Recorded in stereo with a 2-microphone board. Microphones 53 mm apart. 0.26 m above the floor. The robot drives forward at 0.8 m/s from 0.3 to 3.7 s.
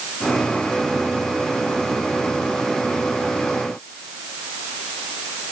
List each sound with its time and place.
Only background noise.